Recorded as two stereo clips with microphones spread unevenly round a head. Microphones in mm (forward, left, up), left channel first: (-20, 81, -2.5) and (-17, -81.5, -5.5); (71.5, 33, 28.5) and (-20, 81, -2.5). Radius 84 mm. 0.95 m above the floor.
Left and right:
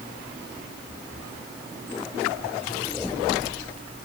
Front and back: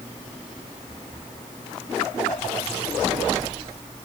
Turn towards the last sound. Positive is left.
No sound to turn to.